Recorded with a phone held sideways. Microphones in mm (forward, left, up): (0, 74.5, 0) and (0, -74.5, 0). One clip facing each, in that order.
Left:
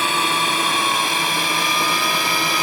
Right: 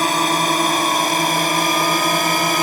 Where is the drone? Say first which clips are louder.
Right 4 dB; 40° right (ahead or behind); by 2.6 s 45° right (ahead or behind).